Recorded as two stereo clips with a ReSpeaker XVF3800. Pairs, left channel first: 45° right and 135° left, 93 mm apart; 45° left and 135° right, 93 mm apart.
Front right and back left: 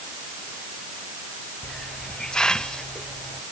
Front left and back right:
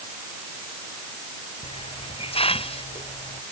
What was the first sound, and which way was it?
A hiss, 35° left.